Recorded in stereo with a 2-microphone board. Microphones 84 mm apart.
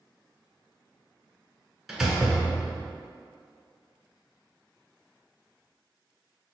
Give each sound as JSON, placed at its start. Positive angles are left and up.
{"t": 1.9, "sound": "a door slam", "side_deg": -5, "distance_m": 0.8}